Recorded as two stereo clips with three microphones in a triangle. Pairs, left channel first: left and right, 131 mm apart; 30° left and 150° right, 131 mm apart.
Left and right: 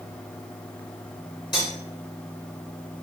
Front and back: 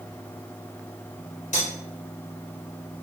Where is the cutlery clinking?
35° left, 1.6 m.